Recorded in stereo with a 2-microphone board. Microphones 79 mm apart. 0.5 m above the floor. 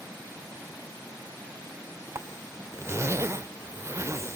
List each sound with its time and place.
2.1 s a zipper: 35° right (ahead or behind), 0.6 m